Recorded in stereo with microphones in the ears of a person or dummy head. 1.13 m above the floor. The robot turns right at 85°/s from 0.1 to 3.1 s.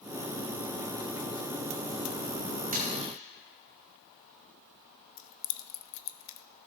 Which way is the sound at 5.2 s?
70° left (ahead or behind).